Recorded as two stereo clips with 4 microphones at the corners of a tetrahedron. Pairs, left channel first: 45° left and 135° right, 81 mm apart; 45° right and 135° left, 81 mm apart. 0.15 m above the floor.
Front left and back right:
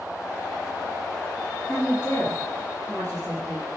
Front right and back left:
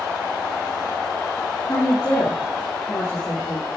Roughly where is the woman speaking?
Ahead.